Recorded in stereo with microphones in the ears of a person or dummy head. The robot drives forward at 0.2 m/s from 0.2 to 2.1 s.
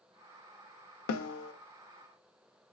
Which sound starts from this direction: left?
A snare drum, at 1.1 s.